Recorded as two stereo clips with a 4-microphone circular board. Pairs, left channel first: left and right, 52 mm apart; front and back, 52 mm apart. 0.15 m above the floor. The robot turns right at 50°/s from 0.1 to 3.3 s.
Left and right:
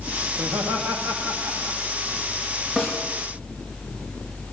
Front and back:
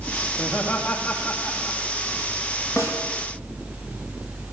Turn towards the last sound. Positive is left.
turn(degrees=10)